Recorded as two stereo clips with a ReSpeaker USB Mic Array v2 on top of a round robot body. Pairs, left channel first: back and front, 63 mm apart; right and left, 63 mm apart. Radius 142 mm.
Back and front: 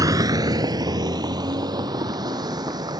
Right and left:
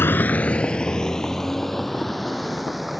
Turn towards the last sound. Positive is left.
turn(degrees=0)